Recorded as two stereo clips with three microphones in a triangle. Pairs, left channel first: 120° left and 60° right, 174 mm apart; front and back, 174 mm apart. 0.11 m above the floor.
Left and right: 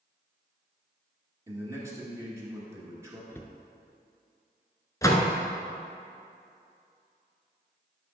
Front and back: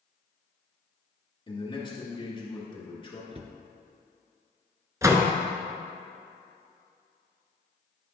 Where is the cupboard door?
175° right, 0.6 m.